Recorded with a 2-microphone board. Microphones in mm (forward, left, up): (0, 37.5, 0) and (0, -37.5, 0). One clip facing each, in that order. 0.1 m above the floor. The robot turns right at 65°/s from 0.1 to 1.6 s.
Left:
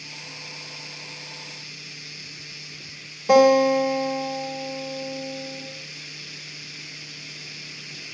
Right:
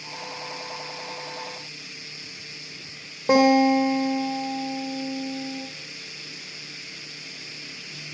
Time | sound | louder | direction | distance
3.3 | a guitar | left 2 dB | 35° right (ahead or behind) | 5 m